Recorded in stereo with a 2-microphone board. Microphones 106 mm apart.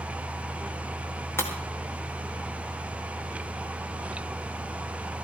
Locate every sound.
1.4 s breaking glass: 20° left (ahead or behind), 4 m